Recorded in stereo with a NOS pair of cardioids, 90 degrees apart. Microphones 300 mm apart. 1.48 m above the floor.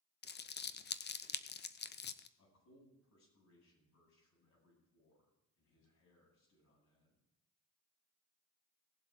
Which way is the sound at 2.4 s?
65° left.